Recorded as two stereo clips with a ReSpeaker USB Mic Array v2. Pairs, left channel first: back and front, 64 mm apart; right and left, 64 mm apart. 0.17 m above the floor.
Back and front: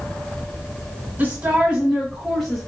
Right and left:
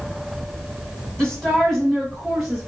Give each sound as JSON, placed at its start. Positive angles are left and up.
{"t": 1.2, "sound": "a woman speaking", "azimuth_deg": -25, "distance_m": 1.3}